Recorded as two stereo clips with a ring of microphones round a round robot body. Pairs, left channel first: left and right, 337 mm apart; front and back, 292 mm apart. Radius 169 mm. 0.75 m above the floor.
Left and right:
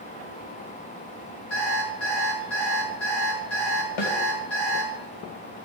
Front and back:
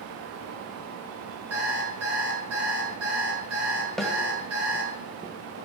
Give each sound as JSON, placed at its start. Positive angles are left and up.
{"t": 1.5, "sound": "an alarm clock", "azimuth_deg": 140, "distance_m": 7.0}
{"t": 4.0, "sound": "a snare drum", "azimuth_deg": 90, "distance_m": 2.5}